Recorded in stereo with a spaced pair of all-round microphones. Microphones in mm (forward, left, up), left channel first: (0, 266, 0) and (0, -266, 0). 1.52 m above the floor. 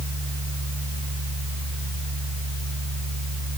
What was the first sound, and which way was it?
A fan, 40° right (ahead or behind).